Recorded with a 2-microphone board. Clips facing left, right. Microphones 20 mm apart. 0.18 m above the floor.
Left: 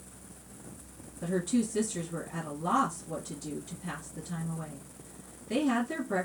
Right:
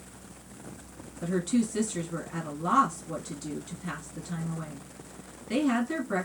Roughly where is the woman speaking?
Right.